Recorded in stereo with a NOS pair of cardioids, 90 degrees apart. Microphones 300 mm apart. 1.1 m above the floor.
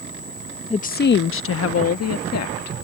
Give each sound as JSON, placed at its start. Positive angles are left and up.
{"t": 0.7, "sound": "a woman speaking", "azimuth_deg": 20}